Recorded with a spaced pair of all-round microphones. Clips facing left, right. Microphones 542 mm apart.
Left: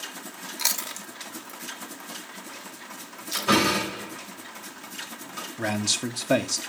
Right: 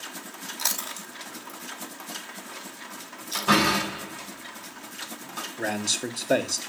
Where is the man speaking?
30° left (ahead or behind), 0.5 m.